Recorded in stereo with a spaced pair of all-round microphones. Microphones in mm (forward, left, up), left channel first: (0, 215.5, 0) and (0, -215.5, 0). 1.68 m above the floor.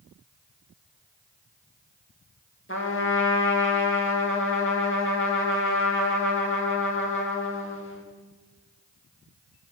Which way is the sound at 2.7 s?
30° left (ahead or behind).